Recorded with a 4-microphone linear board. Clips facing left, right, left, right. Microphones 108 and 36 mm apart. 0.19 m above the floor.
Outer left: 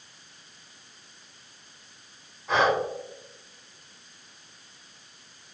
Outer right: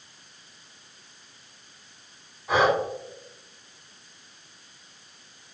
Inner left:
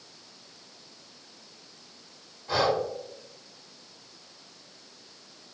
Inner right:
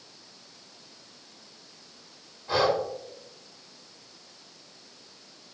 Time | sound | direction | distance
2.5 | breathing | 10° right (ahead or behind) | 0.9 m